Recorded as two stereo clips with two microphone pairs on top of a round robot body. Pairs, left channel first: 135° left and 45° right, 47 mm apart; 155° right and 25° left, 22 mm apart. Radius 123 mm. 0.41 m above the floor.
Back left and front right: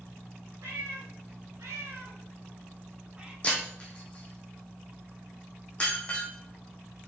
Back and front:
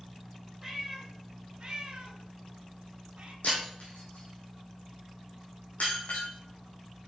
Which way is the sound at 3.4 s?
155° right.